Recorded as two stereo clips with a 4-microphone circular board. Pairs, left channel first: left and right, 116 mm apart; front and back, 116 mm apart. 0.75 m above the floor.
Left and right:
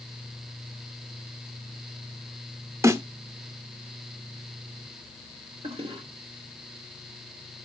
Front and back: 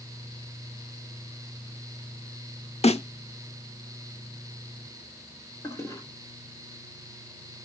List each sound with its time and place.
2.8 s a snare drum: 25° right, 0.7 m
5.6 s a toilet flushing: 60° right, 2.5 m